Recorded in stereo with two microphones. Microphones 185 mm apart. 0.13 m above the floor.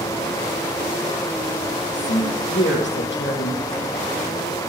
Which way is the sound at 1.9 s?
75° left (ahead or behind).